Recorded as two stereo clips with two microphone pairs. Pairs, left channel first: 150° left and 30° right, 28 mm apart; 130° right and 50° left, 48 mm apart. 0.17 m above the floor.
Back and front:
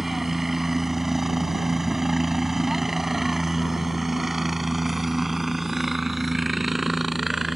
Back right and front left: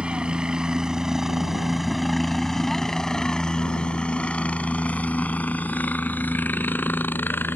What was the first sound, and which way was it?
A helicopter, 35° left.